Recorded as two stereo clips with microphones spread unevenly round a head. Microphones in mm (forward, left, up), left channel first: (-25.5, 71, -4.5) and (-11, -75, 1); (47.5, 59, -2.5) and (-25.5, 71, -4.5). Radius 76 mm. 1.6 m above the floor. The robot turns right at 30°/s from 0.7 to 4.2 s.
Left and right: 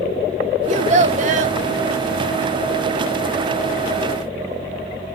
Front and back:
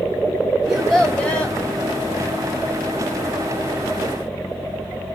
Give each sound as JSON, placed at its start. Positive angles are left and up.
{"t": 0.7, "sound": "a child speaking", "azimuth_deg": -100, "distance_m": 0.8}